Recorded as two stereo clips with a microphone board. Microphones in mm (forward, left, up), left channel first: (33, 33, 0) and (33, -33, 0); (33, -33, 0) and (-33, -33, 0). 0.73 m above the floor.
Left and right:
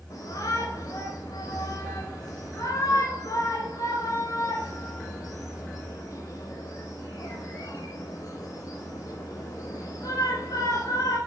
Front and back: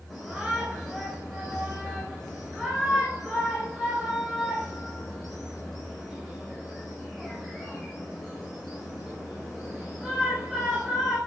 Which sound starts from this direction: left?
A shout, at 0.1 s.